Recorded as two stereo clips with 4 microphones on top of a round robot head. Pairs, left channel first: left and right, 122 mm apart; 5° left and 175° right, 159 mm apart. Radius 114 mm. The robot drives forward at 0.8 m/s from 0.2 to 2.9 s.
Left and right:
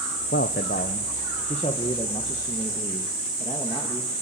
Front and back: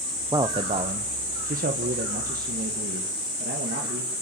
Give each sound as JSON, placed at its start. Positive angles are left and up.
{"t": 0.3, "sound": "a man speaking", "azimuth_deg": 115, "distance_m": 0.9}